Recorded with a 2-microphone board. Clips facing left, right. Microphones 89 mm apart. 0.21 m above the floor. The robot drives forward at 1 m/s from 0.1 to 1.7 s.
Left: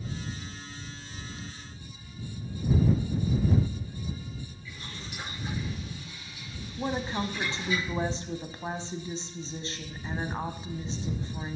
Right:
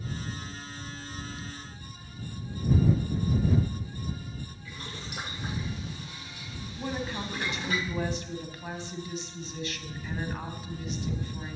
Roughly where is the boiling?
Right.